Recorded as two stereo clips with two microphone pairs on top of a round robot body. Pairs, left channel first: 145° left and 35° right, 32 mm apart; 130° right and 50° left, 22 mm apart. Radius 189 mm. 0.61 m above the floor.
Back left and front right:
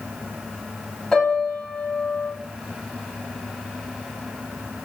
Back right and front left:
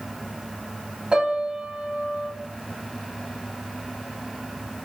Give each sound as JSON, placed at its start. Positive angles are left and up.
{"t": 1.1, "sound": "a piano", "azimuth_deg": 75, "distance_m": 2.0}